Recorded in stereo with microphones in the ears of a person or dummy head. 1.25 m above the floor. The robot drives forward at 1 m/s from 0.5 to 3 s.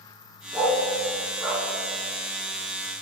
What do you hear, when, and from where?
0.5 s a dog barking: 5° left (ahead or behind), 1.2 m